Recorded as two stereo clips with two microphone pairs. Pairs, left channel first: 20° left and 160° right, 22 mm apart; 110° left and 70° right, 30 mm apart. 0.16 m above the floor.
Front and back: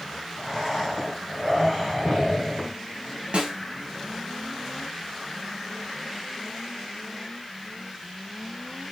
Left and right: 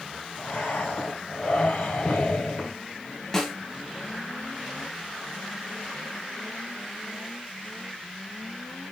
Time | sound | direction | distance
0.4 | breathing | 120° left | 1.3 m
3.3 | a snare drum | 170° right | 1.1 m